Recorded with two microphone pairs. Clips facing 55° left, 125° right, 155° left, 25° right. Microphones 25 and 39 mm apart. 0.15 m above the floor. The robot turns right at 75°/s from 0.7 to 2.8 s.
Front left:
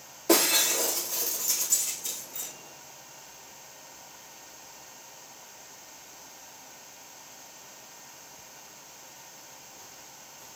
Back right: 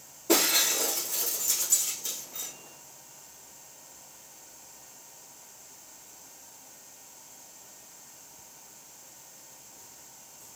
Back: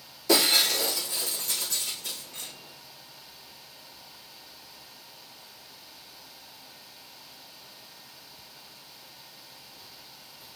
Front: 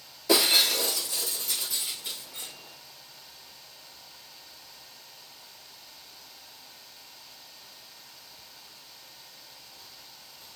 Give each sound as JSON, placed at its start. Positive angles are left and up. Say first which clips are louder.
{"t": 0.3, "sound": "breaking glass", "louder": "front left 1 dB, even", "azimuth_deg": 60, "distance_m": 4.0}